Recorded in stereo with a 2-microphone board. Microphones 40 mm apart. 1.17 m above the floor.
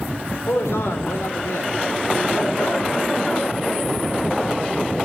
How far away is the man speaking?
About 4 m.